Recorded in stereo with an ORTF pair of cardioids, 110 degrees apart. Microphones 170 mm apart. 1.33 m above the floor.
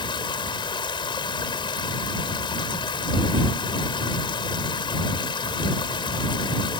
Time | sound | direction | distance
0.0 | running water | 30° left | ?